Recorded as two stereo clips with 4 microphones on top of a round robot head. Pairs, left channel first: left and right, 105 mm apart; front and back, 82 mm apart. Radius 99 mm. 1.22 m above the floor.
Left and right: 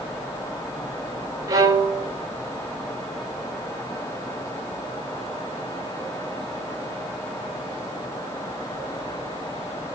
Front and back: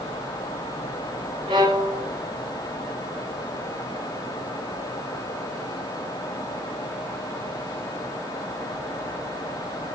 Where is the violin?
130° right, 0.7 m.